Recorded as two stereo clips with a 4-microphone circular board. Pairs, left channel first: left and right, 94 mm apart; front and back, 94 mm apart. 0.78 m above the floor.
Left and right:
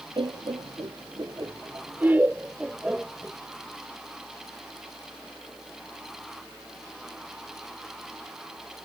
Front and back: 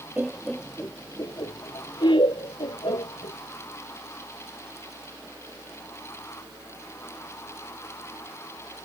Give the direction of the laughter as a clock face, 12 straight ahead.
4 o'clock.